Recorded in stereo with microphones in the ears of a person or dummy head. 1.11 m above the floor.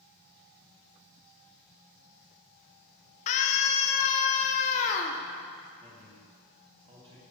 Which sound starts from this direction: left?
A scream, at 3.3 s.